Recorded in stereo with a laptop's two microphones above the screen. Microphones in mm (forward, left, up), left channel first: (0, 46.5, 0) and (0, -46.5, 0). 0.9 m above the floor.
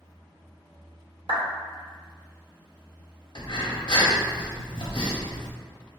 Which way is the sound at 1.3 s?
70° right (ahead or behind).